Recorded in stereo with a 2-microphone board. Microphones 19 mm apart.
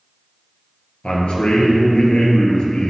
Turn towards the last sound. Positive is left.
turn(degrees=55)  # may be behind; listen again after turning